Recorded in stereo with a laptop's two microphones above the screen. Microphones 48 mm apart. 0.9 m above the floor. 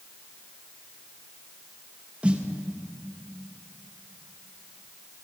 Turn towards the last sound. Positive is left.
turn(degrees=-25)  # may be behind; listen again after turning